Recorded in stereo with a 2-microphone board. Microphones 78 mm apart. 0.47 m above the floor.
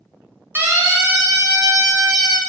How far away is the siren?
About 3.5 m.